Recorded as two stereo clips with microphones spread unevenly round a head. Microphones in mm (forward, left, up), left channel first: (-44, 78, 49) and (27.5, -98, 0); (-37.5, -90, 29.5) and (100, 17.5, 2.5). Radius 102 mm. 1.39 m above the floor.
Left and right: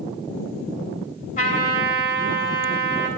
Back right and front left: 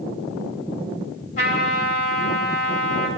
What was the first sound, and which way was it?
A trumpet, 160° left.